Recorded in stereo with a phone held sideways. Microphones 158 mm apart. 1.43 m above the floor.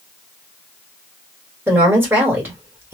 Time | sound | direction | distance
1.7 | a woman speaking | 15° right (ahead or behind) | 2.0 m